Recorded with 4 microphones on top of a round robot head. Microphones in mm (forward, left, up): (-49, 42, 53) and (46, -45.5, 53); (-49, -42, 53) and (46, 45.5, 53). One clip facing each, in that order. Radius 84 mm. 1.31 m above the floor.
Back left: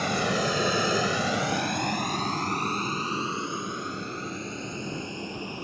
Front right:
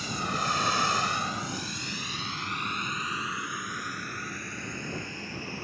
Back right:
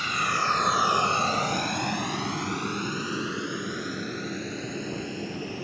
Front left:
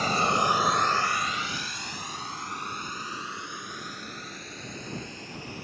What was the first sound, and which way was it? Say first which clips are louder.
A vehicle: back left 6 dB, front left 4 dB; 95° left.